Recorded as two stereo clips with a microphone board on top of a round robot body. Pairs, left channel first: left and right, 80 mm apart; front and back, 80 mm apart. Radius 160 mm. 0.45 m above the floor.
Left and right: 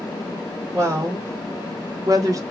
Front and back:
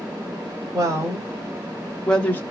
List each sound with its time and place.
0.7 s a woman speaking: 135° right, 1.5 m; by 2.4 s 55° right, 1.0 m